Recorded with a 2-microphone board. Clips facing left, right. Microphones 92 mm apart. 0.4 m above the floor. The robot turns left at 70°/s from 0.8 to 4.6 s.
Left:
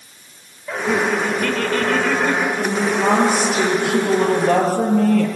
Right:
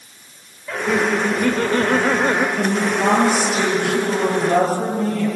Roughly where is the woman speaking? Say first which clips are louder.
Even; behind right.